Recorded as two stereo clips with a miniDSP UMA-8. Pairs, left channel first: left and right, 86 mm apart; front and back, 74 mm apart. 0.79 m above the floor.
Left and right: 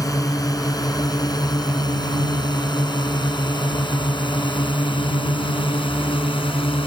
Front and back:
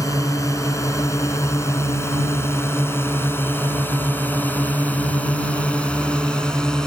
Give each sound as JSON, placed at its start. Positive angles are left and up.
{"t": 0.0, "sound": "a drone", "azimuth_deg": 45}